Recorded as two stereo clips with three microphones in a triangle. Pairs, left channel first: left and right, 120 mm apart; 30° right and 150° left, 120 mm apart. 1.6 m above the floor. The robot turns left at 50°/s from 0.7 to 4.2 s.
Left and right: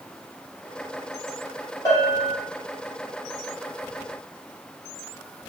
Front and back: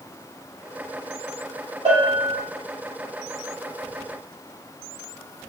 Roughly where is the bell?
Behind left.